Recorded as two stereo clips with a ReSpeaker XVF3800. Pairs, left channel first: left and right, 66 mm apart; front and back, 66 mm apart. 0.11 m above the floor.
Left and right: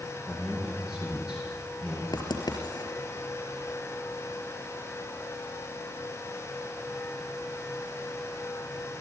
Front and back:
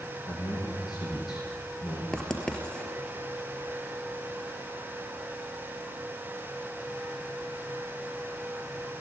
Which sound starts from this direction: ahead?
A man speaking, at 0.3 s.